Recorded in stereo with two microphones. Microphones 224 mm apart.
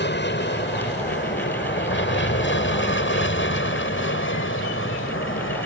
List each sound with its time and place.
0.0 s an aircraft: 50° left (ahead or behind); by 5.7 s 60° left (ahead or behind)